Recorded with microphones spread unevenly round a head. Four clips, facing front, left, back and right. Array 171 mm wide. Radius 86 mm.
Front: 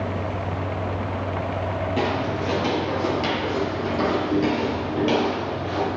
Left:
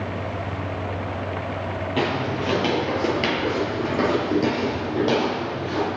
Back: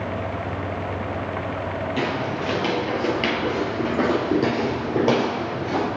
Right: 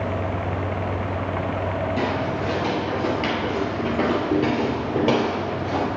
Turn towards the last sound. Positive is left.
turn(degrees=-155)